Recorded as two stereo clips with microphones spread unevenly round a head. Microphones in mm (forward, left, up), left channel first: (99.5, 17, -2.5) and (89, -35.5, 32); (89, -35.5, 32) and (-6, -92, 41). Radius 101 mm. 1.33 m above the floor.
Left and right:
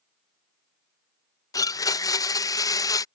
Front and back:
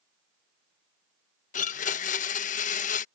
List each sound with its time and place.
1.5 s a blender: 50° left